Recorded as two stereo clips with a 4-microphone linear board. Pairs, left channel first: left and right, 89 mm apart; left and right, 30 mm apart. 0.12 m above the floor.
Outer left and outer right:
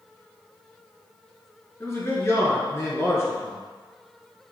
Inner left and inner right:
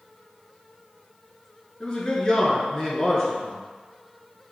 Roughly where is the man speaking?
Left.